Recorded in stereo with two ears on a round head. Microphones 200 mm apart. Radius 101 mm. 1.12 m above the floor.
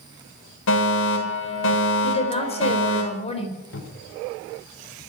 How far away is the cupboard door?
About 3 m.